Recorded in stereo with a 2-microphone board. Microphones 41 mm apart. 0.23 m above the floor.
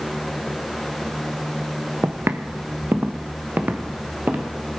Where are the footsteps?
80° right, 1.0 m; by 4.5 s 45° right (ahead or behind), 2.5 m.